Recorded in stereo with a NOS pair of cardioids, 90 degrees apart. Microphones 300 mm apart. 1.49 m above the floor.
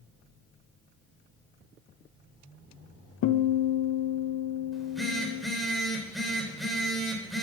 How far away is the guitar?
About 1.2 m.